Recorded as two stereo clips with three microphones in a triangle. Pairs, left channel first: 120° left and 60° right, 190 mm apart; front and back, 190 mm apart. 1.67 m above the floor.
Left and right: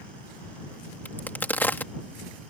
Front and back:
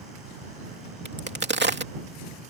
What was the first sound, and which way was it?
A crack, 160° right.